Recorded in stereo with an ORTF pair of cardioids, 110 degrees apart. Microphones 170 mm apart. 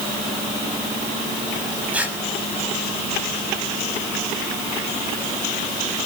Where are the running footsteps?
No running footsteps in this recording.